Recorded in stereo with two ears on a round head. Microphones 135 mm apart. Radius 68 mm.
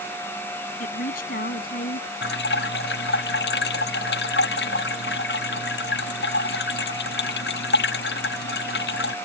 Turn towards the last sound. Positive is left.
turn(degrees=75)  # may be behind; listen again after turning